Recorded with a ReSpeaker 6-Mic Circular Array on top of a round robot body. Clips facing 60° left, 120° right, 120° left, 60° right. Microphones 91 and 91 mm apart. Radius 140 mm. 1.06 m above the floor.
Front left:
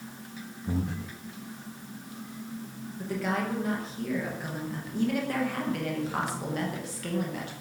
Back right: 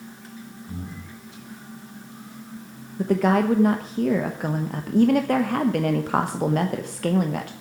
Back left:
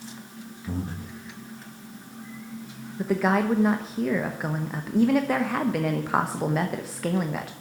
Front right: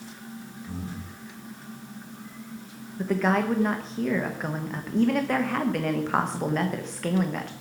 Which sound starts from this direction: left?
Breathing, at 0.7 s.